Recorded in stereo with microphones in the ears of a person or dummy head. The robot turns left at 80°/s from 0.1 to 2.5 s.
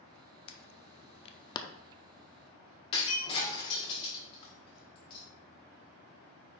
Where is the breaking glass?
30° left (ahead or behind), 1.3 m.